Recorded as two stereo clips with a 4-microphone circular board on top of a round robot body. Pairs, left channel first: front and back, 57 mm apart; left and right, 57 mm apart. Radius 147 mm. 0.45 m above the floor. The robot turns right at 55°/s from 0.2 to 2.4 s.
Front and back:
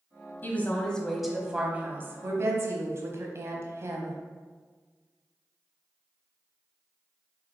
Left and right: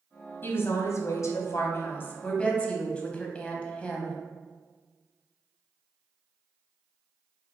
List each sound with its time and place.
0.4 s a woman speaking: 50° left, 1.0 m; by 4.2 s 160° left, 1.0 m